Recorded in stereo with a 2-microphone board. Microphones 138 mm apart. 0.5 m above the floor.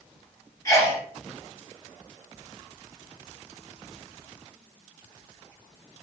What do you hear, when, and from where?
0.7 s a sneeze: 25° left (ahead or behind), 3 m